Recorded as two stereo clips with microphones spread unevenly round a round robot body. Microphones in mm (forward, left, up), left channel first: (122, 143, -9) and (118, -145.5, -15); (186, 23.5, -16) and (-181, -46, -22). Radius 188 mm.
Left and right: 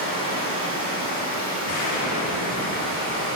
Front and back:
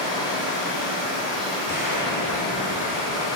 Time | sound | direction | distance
0.0 | running water | 65° right | 1.6 m
1.6 | an explosion | 110° left | 0.5 m